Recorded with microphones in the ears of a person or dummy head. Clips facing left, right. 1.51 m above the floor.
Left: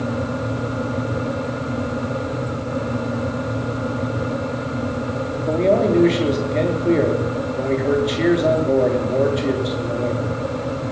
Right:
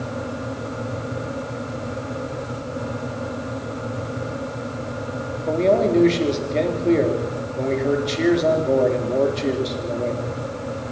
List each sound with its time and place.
5.5 s a man speaking: 5° left (ahead or behind), 4 m